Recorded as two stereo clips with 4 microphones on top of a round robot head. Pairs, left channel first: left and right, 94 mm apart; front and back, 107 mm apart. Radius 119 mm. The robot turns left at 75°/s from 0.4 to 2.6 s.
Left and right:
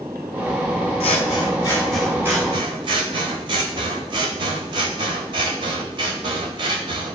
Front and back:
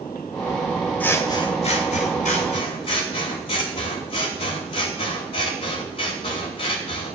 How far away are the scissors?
About 0.8 m.